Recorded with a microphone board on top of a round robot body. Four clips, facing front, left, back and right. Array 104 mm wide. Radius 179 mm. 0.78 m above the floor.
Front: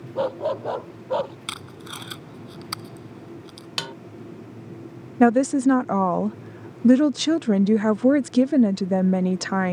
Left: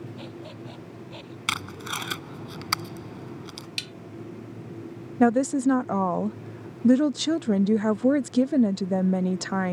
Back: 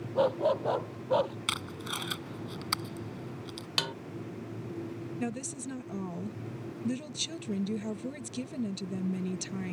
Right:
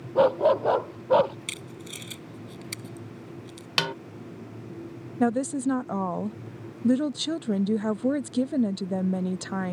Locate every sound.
0.1 s a dog barking: 85° right; by 1.4 s 80° right
1.5 s tape being pulled: 90° left
3.8 s a snare drum: 85° right
5.2 s a woman speaking: 15° left